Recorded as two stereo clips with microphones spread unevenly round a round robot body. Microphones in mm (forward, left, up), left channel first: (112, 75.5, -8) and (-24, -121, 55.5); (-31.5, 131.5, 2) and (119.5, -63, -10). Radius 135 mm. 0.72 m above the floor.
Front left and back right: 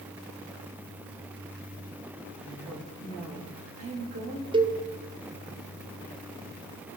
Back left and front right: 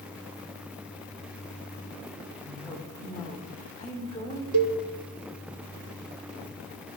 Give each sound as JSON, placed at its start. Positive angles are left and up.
{"t": 2.4, "sound": "a woman speaking", "azimuth_deg": -170, "distance_m": 3.0}
{"t": 4.5, "sound": "a cowbell", "azimuth_deg": -50, "distance_m": 0.8}